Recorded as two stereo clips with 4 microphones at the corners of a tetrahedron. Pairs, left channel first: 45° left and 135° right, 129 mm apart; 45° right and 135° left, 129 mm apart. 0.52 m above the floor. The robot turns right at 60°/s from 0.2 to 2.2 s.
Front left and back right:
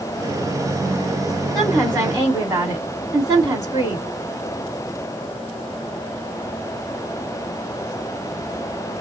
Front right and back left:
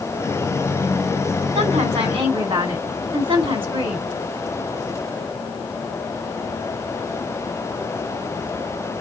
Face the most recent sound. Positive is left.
turn(degrees=165)